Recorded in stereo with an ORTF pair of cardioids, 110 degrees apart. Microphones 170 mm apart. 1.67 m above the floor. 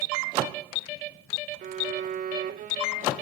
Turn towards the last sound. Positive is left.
turn(degrees=-60)